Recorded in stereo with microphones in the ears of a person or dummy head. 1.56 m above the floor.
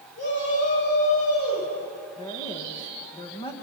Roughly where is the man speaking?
Left.